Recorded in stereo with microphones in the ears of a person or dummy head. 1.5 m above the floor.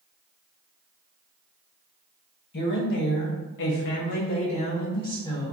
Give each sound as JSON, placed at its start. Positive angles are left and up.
{"t": 2.5, "sound": "a woman speaking", "side_deg": 60, "distance_m": 0.8}